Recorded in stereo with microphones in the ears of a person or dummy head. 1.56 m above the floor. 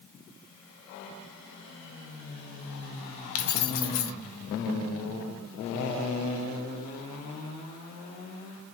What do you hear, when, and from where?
3.4 s keys jangling: 45° left (ahead or behind), 1.0 m